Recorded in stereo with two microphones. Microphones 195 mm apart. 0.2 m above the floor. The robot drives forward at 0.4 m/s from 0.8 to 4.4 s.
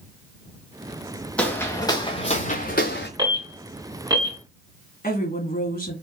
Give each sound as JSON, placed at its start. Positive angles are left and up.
{"t": 1.4, "sound": "footsteps", "side_deg": 5, "distance_m": 1.8}
{"t": 3.2, "sound": "an alarm", "side_deg": -25, "distance_m": 2.5}
{"t": 5.0, "sound": "a woman speaking", "side_deg": 50, "distance_m": 1.7}